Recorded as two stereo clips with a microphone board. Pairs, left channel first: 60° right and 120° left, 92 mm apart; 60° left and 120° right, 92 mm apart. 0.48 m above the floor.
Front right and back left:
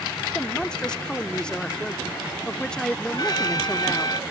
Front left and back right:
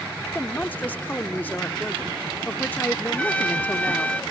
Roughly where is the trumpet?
Ahead.